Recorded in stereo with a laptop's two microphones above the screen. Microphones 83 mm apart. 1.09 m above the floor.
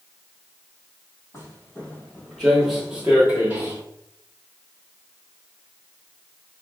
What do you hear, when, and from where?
1.3 s footsteps: 35° left (ahead or behind), 1.3 m; by 3.8 s 30° right (ahead or behind), 1.3 m